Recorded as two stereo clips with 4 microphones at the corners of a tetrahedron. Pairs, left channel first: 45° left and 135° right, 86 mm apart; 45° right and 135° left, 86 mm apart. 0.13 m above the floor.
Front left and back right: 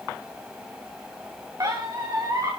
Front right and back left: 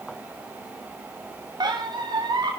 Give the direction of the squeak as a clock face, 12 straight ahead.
6 o'clock.